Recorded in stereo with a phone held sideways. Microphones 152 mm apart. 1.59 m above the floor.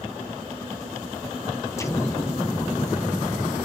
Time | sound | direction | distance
1.8 | an explosion | 20° left (ahead or behind) | 0.5 m